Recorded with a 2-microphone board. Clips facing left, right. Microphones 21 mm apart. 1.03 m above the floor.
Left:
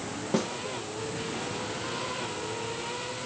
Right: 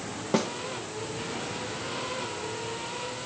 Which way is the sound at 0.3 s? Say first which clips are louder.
Right 2 dB; 20° right (ahead or behind).